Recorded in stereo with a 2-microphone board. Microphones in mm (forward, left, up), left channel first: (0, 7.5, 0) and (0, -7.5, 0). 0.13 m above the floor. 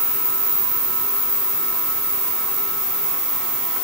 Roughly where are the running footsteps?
I don't hear running footsteps.